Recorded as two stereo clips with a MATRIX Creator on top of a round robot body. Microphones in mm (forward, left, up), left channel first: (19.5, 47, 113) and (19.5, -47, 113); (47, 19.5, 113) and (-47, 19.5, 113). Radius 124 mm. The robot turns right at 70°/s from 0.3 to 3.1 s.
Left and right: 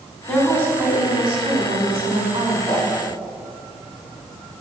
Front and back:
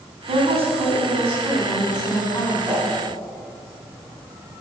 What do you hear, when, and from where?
0.3 s a woman speaking: 175° left, 3 m; by 2.6 s 25° right, 3 m
2.7 s a whoosh: 100° left, 3.5 m; by 2.9 s 115° left, 3.5 m